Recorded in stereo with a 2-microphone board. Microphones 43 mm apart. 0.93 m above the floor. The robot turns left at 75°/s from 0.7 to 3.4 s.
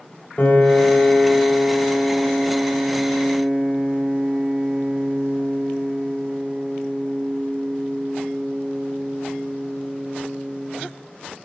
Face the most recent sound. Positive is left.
turn(degrees=-130)